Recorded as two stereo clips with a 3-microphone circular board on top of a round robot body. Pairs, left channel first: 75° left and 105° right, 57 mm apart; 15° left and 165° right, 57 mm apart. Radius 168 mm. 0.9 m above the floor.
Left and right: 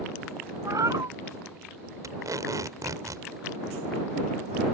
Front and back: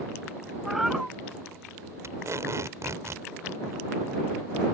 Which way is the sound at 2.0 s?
125° right.